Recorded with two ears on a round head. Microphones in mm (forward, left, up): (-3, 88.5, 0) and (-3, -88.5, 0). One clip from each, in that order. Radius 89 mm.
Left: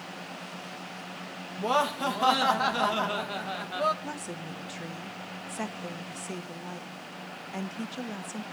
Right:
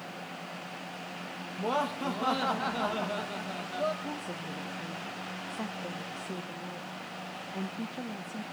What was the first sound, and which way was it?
Laughter, 40° left (ahead or behind).